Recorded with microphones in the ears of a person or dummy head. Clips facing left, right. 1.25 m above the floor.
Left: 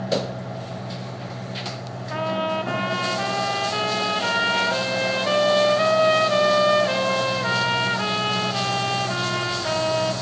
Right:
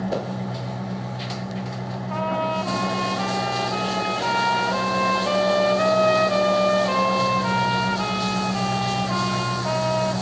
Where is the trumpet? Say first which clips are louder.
Even; 15° left (ahead or behind), 0.6 m.